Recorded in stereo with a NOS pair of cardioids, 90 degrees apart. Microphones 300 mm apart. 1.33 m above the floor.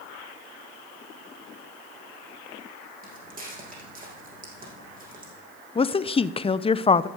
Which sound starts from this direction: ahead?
A woman speaking, at 5.8 s.